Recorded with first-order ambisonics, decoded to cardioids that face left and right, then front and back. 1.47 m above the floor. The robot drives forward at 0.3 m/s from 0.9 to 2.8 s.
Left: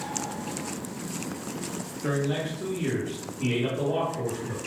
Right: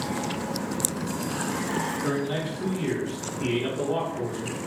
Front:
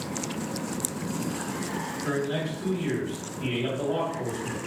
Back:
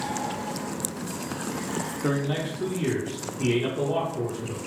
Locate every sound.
2.0 s a man speaking: straight behind, 0.7 m